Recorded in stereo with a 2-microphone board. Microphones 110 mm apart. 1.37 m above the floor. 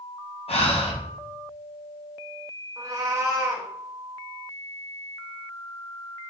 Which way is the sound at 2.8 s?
30° right (ahead or behind).